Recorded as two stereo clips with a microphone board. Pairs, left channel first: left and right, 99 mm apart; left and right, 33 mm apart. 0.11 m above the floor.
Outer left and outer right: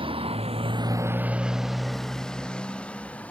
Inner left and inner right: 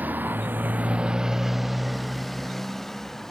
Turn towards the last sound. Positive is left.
turn(degrees=15)  # may be behind; listen again after turning